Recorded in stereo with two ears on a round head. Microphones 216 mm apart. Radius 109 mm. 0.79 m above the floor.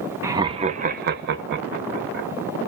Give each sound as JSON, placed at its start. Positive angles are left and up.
{"t": 0.2, "sound": "laughter", "side_deg": -10, "distance_m": 0.7}